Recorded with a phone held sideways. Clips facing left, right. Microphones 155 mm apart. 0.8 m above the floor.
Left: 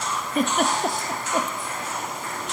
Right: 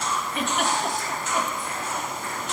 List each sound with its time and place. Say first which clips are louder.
0.3 s a giggle: left 5 dB; 40° left (ahead or behind), 0.6 m